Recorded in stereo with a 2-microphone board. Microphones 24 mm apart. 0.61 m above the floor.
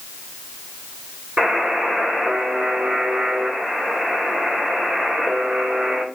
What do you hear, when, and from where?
1.4 s a buzzer: 55° right (ahead or behind), 3 m